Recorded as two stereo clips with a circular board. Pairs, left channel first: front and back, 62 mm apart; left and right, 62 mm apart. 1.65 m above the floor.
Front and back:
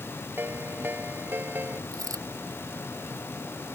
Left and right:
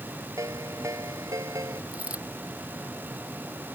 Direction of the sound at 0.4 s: 125° right.